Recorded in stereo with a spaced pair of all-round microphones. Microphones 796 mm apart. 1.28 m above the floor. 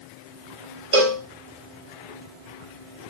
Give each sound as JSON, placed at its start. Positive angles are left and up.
{"t": 0.9, "sound": "a cowbell", "side_deg": -45, "distance_m": 0.5}